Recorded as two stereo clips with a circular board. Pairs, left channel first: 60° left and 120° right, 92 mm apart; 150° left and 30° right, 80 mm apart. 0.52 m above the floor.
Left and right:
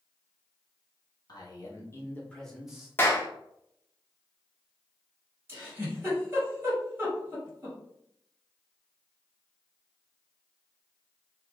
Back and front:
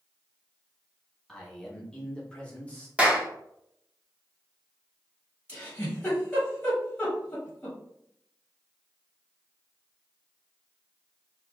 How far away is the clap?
About 0.6 m.